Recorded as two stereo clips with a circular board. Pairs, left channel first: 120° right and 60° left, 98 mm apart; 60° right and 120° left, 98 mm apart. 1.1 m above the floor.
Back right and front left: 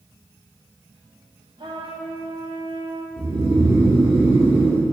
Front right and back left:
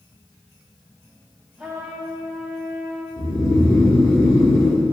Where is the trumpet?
35° left, 1.5 m.